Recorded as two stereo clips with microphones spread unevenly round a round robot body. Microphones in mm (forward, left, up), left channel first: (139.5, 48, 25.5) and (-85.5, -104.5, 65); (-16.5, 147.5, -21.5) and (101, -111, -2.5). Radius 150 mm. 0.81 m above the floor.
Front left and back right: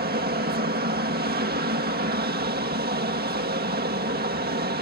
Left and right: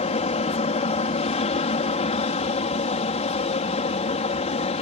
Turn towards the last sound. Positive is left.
turn(degrees=170)